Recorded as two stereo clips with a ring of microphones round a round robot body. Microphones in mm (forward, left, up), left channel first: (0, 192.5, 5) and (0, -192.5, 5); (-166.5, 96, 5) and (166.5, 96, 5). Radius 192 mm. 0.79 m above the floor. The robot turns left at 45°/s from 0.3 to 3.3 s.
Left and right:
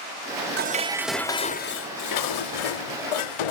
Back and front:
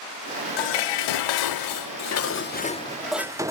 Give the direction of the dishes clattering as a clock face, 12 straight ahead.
5 o'clock.